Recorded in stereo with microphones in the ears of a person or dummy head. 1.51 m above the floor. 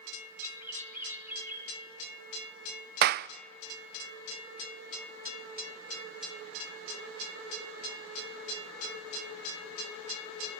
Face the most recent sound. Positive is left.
turn(degrees=-55)  # may be behind; listen again after turning